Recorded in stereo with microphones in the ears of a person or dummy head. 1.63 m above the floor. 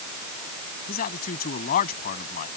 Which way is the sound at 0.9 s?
45° left (ahead or behind).